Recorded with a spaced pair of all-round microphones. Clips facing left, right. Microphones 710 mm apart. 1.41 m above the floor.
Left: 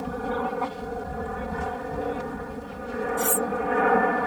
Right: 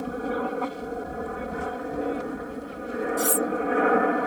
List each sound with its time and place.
0.0 s an aircraft: 30° left (ahead or behind)
3.2 s cutlery clinking: 65° right (ahead or behind)